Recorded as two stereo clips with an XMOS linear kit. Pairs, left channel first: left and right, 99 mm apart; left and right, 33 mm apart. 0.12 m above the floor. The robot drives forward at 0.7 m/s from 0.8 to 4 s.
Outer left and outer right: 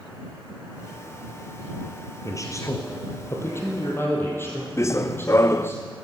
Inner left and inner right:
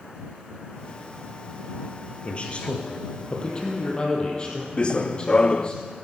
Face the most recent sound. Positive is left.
turn(degrees=30)  # may be behind; listen again after turning